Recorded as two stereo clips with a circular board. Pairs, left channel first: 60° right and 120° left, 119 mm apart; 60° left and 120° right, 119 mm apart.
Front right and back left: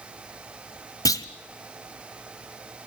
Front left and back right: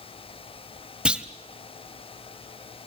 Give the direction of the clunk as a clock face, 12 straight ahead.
2 o'clock.